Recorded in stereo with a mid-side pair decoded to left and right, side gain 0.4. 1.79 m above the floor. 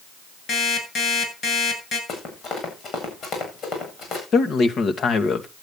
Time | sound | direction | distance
0.5 | an alarm clock | 65° left | 7.5 m
2.1 | running footsteps | 70° left | 8 m
4.3 | a man speaking | 60° left | 1.9 m